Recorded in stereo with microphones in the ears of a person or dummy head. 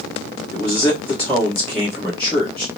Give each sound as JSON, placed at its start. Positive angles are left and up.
{"t": 0.5, "sound": "a man speaking", "side_deg": 5, "distance_m": 1.4}